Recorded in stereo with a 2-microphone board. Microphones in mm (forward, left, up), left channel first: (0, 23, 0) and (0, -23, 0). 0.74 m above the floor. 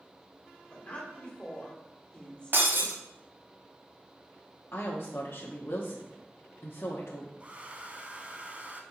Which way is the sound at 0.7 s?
20° left (ahead or behind).